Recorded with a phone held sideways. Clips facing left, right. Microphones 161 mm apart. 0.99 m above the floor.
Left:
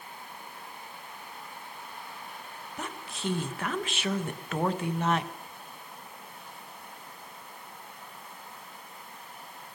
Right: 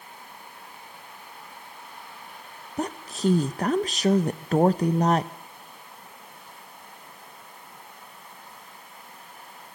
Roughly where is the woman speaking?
Right.